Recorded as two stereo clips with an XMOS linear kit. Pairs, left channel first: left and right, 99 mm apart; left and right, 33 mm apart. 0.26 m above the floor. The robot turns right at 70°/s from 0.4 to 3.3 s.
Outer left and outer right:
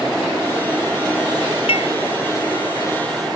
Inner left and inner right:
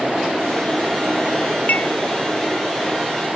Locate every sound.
1.7 s dishes clattering: 65° left (ahead or behind); by 1.9 s 80° left